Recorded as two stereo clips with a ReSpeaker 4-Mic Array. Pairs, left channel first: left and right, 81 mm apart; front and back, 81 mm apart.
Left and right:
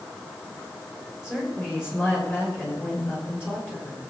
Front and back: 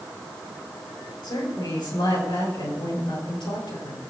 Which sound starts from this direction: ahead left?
A woman speaking, at 1.2 s.